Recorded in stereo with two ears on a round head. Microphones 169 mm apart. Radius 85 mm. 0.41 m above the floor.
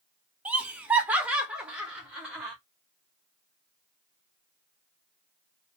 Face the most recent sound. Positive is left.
turn(degrees=-5)  # may be behind; listen again after turning